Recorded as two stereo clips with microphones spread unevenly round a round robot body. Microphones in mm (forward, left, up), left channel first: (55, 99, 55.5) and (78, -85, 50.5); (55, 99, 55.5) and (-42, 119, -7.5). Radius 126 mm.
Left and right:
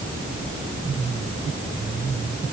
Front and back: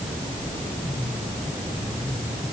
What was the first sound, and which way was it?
Only background noise.